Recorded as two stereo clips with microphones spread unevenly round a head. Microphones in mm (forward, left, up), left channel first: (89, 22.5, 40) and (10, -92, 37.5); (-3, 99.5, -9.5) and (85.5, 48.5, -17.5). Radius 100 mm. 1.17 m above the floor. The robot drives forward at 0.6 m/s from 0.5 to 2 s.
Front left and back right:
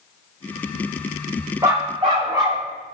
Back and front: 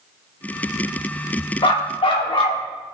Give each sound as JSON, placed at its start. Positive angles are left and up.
{"t": 1.6, "sound": "a dog barking", "azimuth_deg": 160, "distance_m": 0.9}